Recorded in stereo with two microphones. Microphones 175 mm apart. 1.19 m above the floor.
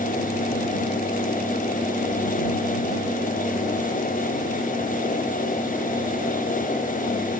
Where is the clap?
I don't hear a clap.